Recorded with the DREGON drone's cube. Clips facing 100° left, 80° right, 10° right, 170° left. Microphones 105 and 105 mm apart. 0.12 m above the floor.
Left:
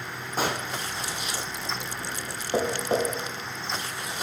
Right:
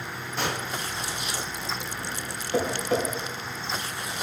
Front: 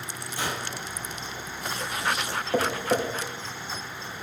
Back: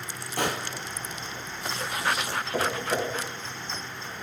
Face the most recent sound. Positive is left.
turn(degrees=40)